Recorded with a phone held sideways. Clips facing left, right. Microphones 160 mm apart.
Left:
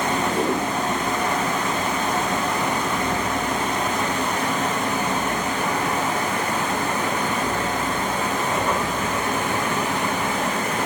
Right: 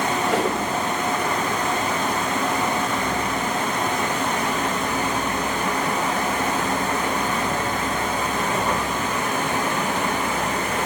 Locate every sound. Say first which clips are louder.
0.2 s a whoosh: right 1 dB; 80° right, 6 m